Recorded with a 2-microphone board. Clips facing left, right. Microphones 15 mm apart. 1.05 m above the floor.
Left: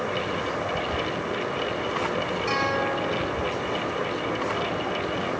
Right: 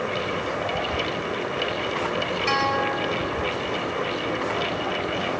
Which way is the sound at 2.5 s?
50° right (ahead or behind).